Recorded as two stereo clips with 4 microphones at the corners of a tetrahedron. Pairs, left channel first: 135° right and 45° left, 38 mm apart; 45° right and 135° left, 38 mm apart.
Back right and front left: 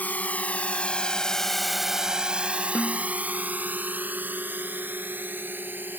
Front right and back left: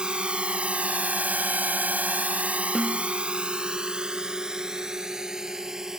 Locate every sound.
0.0 s a drone: 165° right; by 6.0 s 60° left
2.8 s a snare drum: 140° right